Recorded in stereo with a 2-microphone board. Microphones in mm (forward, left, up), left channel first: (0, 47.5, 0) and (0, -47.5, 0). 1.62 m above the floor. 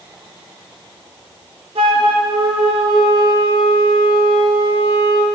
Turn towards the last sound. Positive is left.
turn(degrees=-75)  # may be behind; listen again after turning